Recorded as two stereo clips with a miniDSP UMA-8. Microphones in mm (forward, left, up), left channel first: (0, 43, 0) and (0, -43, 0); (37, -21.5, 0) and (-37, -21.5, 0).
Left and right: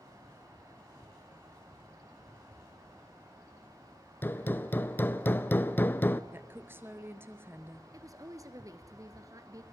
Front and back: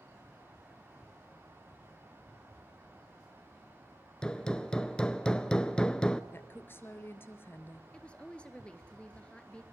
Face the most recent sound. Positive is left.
turn(degrees=-70)